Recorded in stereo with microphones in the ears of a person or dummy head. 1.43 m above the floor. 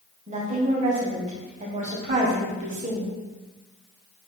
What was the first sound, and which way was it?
A woman speaking, 35° right (ahead or behind).